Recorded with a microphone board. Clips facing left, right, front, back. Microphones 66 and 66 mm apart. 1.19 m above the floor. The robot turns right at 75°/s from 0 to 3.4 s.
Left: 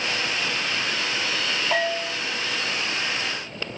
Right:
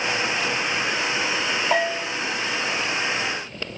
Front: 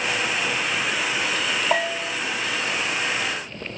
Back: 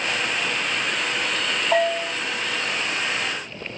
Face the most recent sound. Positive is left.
turn(degrees=105)